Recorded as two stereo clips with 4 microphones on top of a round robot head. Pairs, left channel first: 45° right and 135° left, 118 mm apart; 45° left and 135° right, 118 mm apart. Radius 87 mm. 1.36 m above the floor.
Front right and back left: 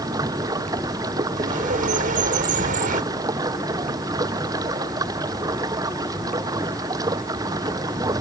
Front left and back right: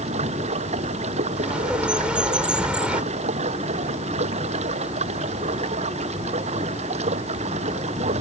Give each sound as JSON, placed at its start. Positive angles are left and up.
{"t": 0.0, "sound": "running water", "azimuth_deg": -165}
{"t": 1.4, "sound": "a bird", "azimuth_deg": 145}